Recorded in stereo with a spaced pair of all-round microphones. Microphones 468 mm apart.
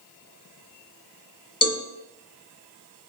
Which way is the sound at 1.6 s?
30° left (ahead or behind).